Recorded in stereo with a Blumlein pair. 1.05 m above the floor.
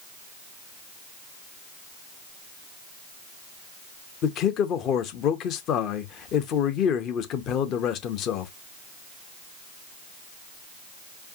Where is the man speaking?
35° left, 0.9 m.